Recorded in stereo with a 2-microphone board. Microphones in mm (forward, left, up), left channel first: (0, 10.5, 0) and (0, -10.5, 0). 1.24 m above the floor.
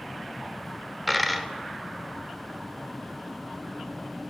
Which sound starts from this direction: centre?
A dropped coin, at 1.1 s.